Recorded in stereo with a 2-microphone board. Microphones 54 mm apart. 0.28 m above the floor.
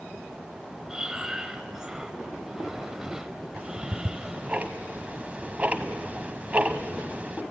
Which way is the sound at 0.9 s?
15° right (ahead or behind).